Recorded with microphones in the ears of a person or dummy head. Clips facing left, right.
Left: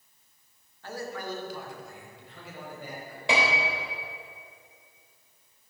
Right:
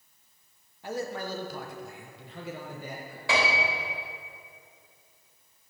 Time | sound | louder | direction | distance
0.8 | a man speaking | right 3 dB | 20° right (ahead or behind) | 1.5 m
3.3 | a piano | left 1 dB | 20° left (ahead or behind) | 3 m